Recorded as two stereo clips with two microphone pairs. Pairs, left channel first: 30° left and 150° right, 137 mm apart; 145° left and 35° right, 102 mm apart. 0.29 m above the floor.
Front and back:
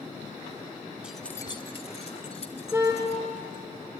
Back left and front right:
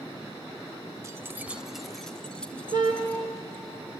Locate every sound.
1.0 s keys jangling: 75° right, 0.7 m; by 3.6 s 70° left, 3 m
2.7 s a car horn: 80° right, 2.5 m